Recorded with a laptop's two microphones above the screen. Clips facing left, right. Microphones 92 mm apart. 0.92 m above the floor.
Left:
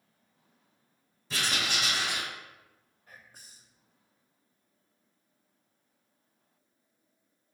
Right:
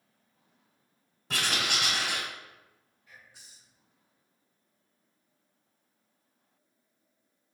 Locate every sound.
1.3 s writing: 65° right (ahead or behind), 1.4 m
3.1 s whispering: 45° left (ahead or behind), 0.7 m